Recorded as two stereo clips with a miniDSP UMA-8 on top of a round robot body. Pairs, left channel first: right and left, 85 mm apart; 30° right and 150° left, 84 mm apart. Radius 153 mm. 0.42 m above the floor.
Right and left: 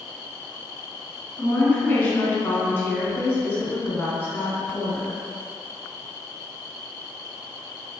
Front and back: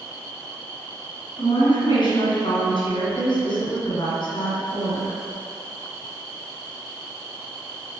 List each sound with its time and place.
1.4 s a woman speaking: 30° right, 1.9 m